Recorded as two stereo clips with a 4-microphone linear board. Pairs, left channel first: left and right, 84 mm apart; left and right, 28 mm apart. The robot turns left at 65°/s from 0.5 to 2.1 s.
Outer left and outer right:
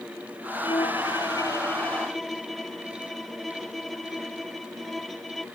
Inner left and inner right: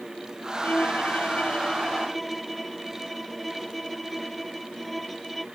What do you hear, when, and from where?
0.6 s a violin: 95° left; by 5.5 s straight ahead